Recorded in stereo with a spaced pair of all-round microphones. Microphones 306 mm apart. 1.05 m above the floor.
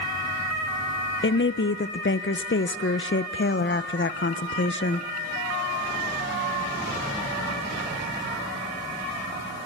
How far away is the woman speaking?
About 0.6 m.